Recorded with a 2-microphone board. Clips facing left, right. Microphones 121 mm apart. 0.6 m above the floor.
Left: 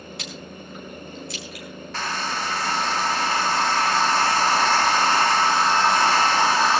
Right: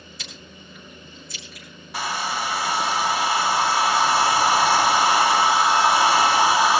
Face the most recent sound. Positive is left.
turn(degrees=-10)  # may be behind; listen again after turning